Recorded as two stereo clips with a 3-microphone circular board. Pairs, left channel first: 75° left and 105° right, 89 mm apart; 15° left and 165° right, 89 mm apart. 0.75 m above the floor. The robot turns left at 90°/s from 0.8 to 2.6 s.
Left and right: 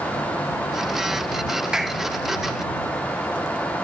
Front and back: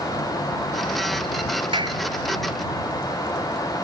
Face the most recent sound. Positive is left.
turn(degrees=100)